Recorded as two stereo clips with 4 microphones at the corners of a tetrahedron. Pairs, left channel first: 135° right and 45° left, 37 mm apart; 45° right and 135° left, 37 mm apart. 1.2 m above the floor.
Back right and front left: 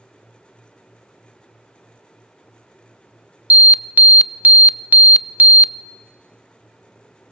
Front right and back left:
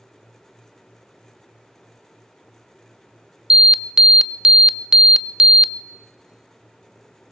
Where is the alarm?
70° left, 0.6 m.